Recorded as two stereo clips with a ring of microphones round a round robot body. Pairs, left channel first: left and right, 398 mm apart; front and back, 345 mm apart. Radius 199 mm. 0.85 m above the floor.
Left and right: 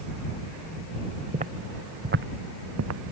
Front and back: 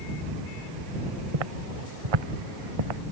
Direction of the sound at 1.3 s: 165° right.